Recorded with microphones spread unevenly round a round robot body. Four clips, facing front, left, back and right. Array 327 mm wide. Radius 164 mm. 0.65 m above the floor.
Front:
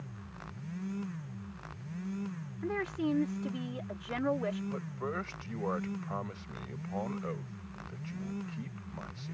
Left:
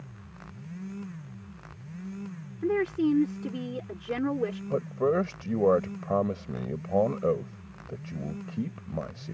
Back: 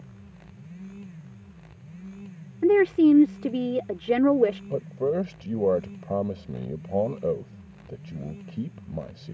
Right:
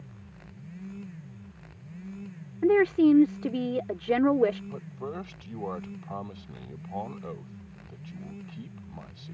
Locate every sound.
2.6 s a woman speaking: 160° right
4.7 s a man speaking: 135° left